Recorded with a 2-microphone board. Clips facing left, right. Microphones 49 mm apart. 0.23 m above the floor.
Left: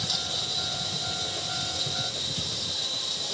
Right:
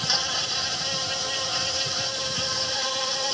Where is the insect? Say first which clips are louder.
Right 5 dB; 60° right (ahead or behind).